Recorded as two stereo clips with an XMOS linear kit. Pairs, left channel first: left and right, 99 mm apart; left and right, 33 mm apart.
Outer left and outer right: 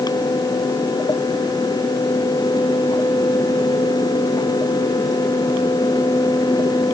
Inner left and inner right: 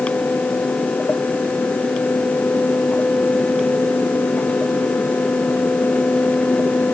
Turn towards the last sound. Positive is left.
No sound to turn to.